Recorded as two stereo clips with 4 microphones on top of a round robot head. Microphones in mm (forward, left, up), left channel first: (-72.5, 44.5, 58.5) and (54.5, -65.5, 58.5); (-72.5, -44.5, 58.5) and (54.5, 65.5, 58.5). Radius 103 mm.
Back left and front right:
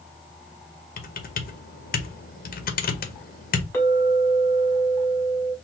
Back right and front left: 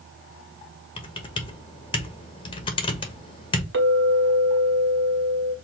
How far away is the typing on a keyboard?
About 1.0 m.